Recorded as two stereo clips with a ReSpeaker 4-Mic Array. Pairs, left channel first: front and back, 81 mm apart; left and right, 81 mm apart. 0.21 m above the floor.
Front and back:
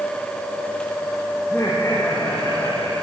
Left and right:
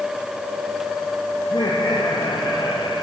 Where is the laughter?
70° left, 7.5 m; by 3.0 s 65° left, 8 m.